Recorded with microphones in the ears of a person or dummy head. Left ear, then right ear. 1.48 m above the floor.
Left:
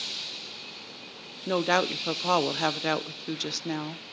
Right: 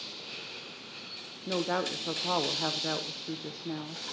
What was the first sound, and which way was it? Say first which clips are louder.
A woman speaking: left 6 dB; 70° left (ahead or behind).